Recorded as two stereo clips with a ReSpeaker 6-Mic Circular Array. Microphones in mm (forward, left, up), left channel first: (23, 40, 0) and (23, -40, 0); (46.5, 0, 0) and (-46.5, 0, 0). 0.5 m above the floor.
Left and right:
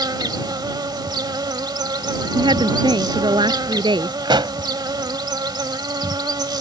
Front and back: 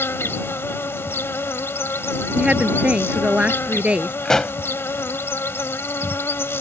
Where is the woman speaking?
105° right.